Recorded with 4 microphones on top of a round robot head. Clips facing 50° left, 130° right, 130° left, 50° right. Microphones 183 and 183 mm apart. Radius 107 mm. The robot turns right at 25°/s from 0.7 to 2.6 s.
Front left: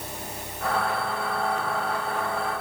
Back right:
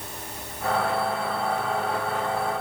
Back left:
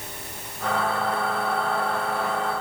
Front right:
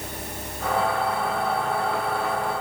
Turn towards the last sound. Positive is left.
No sound to turn to.